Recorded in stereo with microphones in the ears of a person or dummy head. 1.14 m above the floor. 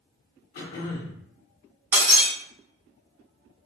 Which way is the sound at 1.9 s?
15° right (ahead or behind).